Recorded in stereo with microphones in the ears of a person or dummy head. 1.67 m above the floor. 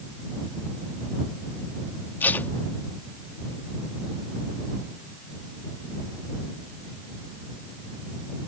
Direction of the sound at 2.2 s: 15° left (ahead or behind).